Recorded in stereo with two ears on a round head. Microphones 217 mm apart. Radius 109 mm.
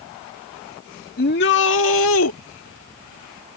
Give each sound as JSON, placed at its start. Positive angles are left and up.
{"t": 1.2, "sound": "a shout", "side_deg": 40}